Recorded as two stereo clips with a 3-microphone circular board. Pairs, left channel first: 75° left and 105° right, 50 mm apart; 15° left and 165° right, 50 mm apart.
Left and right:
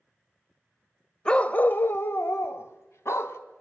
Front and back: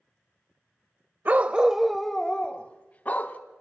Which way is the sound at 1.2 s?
145° left.